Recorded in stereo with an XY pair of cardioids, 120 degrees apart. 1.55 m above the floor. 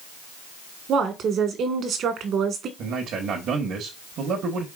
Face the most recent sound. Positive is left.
turn(degrees=-65)